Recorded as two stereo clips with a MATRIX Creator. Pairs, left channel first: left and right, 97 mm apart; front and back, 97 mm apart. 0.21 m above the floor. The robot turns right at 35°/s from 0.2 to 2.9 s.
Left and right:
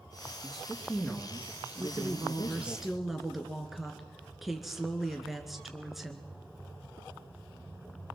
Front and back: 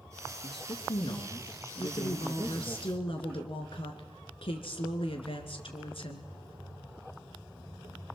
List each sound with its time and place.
0.4 s a man speaking: 20° right, 2.5 m; by 2.8 s 65° left, 2.5 m
1.8 s a woman speaking: 40° right, 2.5 m; by 6.3 s 5° right, 2.5 m